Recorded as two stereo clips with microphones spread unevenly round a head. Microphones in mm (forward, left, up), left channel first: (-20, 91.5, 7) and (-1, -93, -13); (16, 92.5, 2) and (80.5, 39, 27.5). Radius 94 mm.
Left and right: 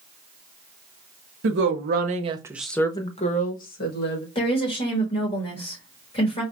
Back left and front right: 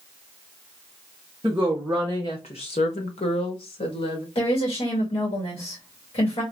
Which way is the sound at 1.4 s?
110° right.